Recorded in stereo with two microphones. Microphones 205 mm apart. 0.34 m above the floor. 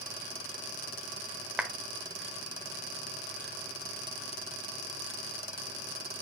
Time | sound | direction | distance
1.6 | a clap | 5° right (ahead or behind) | 1.0 m